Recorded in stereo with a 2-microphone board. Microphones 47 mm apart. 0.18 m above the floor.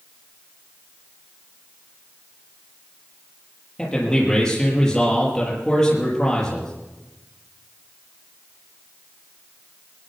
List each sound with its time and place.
3.8 s a man speaking: 10° left (ahead or behind), 5.5 m